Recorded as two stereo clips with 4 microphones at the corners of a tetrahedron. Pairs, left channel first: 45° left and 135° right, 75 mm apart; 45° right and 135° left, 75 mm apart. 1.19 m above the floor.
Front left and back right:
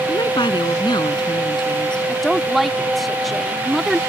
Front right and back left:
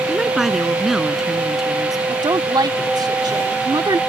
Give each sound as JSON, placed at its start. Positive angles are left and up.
{"t": 0.1, "sound": "a woman speaking", "azimuth_deg": 50}
{"t": 2.1, "sound": "a woman speaking", "azimuth_deg": 135}